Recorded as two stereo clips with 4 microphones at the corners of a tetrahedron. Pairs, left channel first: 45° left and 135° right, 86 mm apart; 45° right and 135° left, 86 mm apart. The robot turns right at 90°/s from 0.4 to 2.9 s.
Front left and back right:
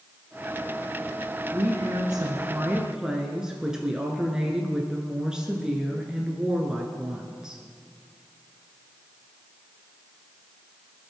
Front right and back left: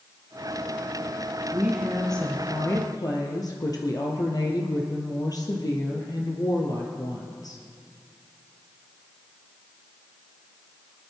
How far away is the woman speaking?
About 1.7 m.